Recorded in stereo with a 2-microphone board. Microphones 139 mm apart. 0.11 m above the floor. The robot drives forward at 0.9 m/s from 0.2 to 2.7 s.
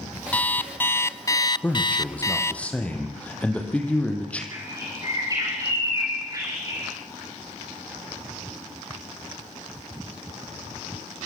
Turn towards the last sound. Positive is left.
turn(degrees=-25)  # may be behind; listen again after turning